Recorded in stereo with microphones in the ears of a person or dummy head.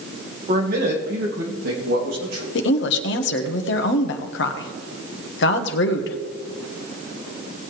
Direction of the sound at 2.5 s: 70° left (ahead or behind).